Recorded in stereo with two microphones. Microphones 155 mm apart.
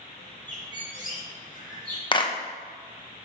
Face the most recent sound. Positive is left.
turn(degrees=30)  # may be behind; listen again after turning